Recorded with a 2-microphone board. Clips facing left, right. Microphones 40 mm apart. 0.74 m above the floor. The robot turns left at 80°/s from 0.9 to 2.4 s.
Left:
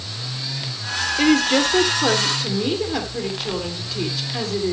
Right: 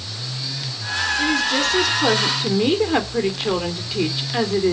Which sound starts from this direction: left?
A woman speaking, at 1.2 s.